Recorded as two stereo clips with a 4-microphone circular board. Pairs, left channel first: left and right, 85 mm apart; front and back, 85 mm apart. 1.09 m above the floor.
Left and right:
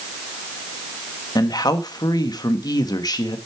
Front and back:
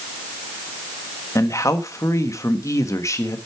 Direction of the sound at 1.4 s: 55° left.